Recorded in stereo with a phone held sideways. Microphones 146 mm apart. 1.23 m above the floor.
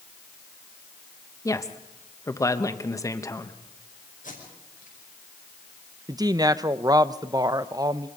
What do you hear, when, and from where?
1.4 s a woman speaking: 20° left (ahead or behind), 1.0 m
4.2 s tape being pulled: 60° left (ahead or behind), 6 m
6.1 s a woman speaking: 25° right (ahead or behind), 0.6 m